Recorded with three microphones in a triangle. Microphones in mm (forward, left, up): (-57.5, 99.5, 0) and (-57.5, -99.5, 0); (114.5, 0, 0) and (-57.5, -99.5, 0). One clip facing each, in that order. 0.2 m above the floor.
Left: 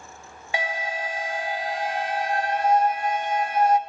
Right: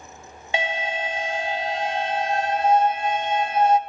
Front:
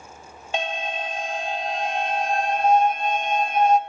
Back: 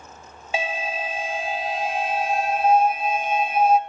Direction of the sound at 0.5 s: 70° right.